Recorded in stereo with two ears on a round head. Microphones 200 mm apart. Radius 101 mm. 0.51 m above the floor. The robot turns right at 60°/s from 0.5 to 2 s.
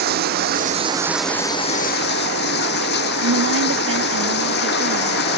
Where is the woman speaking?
70° right (ahead or behind).